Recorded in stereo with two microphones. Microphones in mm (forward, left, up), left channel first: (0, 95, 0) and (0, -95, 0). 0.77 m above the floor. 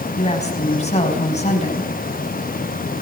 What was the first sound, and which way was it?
A woman speaking, 35° left (ahead or behind).